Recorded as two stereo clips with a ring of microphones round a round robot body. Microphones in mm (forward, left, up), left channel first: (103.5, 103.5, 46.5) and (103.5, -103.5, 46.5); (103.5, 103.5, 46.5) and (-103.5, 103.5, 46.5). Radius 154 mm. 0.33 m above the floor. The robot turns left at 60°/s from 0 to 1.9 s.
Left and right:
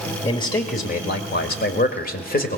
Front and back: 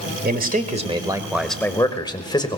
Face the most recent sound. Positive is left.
turn(degrees=65)